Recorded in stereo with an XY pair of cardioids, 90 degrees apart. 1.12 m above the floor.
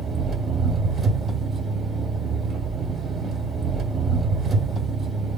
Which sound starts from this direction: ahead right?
An engine running, at 0.0 s.